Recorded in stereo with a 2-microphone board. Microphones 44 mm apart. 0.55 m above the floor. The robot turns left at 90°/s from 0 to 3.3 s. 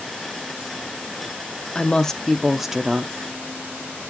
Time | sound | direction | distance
1.8 | a woman speaking | 20° left (ahead or behind) | 0.6 m